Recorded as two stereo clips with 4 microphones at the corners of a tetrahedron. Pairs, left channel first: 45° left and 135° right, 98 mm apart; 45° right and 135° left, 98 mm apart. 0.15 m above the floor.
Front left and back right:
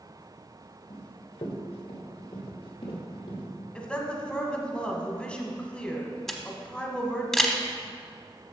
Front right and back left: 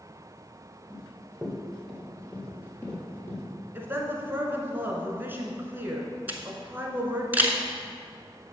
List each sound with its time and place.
0.9 s running footsteps: 55° left, 2.5 m; by 3.4 s 20° left, 4 m
3.8 s a woman speaking: 110° left, 1.1 m
6.3 s a camera shutter: 125° left, 0.8 m